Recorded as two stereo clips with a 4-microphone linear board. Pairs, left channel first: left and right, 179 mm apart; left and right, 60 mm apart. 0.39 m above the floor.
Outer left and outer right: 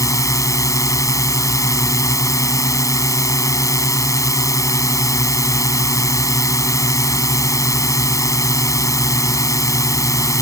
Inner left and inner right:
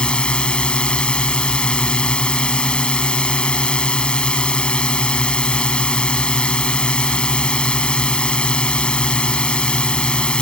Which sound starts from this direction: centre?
A drone, at 0.0 s.